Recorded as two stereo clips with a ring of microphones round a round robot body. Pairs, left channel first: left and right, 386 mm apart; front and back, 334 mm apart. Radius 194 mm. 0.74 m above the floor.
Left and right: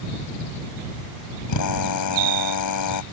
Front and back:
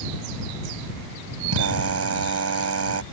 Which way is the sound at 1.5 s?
135° left.